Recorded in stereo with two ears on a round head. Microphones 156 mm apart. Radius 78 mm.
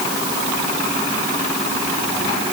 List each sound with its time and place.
Only background noise.